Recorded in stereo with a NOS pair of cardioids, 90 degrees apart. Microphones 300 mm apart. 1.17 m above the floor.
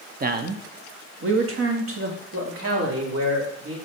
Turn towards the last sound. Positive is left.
turn(degrees=-50)